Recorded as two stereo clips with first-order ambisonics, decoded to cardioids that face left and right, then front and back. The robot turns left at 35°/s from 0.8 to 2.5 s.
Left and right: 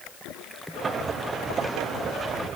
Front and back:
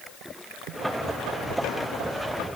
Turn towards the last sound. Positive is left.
No sound to turn to.